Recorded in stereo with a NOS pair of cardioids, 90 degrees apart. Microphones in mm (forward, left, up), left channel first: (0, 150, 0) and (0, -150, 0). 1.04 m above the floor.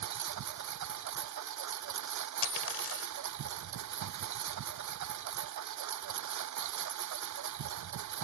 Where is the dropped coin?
45° left.